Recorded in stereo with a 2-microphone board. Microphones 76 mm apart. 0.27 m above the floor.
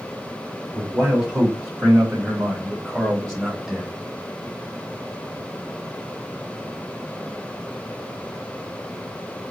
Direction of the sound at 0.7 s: 15° right (ahead or behind).